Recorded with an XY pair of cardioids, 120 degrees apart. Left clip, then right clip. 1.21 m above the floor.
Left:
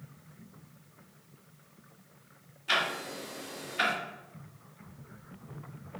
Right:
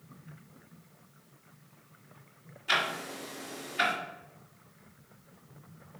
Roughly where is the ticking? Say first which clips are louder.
Even; ahead.